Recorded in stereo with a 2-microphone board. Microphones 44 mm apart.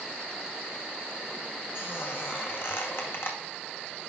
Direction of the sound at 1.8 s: 60° left (ahead or behind).